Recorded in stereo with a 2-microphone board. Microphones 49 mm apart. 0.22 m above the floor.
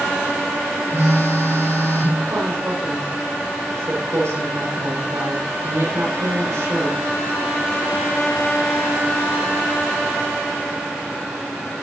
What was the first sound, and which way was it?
A phone buzzing, 70° right (ahead or behind).